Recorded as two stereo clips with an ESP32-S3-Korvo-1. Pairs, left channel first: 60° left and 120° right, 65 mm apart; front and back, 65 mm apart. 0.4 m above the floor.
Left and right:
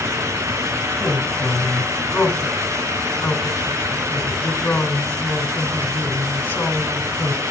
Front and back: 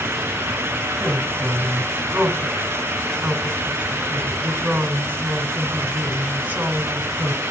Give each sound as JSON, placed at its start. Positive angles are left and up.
{"t": 1.0, "sound": "a woman speaking", "azimuth_deg": 110, "distance_m": 4.5}